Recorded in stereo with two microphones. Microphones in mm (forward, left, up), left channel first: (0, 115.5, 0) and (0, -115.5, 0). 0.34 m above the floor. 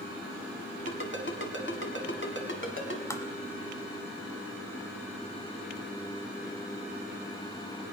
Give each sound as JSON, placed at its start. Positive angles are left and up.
{"t": 0.9, "sound": "a ringtone", "side_deg": 55, "distance_m": 1.8}
{"t": 3.1, "sound": "tapping", "side_deg": 10, "distance_m": 1.2}